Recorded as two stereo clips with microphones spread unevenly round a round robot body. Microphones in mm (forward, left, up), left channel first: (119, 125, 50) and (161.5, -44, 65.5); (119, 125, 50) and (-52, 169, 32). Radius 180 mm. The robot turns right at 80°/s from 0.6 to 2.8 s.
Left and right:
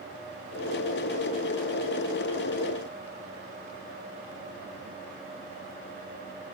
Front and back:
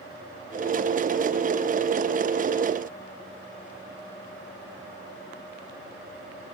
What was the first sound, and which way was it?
Only background noise.